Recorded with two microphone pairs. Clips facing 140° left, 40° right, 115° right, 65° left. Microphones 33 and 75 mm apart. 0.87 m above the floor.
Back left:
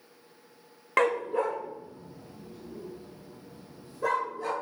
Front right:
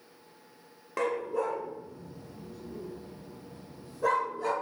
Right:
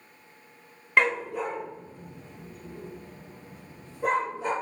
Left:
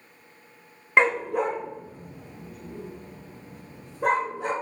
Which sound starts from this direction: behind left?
A dog barking, at 1.0 s.